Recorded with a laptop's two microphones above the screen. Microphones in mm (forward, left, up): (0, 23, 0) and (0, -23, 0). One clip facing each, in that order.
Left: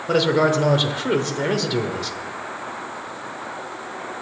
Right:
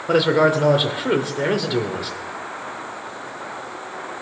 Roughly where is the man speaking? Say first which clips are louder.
Right 2 dB; centre.